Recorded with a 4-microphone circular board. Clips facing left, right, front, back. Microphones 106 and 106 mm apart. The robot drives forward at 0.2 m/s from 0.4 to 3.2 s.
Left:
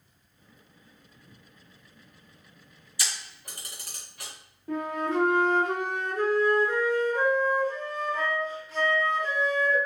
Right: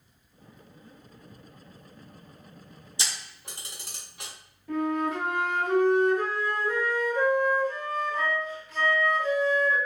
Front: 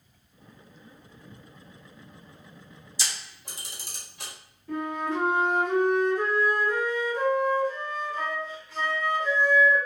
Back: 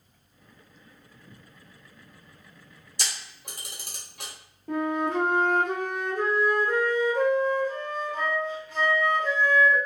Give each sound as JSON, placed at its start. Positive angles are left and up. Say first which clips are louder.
{"t": 3.0, "sound": "a camera shutter", "louder": "even, back 1 dB", "azimuth_deg": -155, "distance_m": 0.8}
{"t": 4.7, "sound": "a flute", "louder": "right 2 dB, back 3 dB", "azimuth_deg": 145, "distance_m": 0.9}